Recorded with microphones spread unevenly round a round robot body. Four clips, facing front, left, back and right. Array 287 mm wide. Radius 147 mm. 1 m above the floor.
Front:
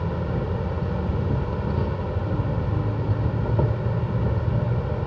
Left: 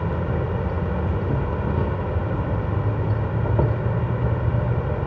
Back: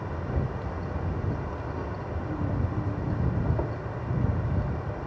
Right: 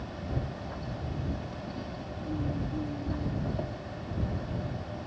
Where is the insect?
55° left.